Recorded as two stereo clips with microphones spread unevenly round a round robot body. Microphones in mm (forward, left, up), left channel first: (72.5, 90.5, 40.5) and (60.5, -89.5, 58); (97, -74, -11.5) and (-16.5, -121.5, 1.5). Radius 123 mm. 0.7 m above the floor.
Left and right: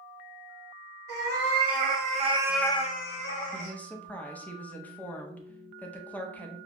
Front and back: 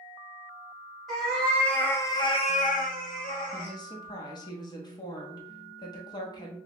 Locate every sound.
1.1 s a cat meowing: 65° right, 1.9 m; by 3.8 s 75° left, 1.4 m
3.5 s a woman speaking: 15° left, 0.8 m